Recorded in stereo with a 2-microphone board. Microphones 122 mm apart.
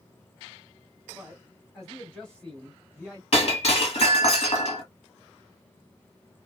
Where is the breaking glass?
60° left (ahead or behind), 1.3 m.